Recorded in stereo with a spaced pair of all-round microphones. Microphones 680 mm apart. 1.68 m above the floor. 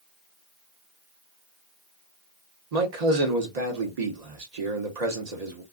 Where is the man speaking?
65° right (ahead or behind), 1.1 m.